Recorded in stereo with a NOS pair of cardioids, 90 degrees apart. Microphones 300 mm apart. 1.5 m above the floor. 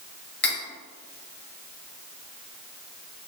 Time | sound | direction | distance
0.4 | cutlery clinking | 35° left | 2.0 m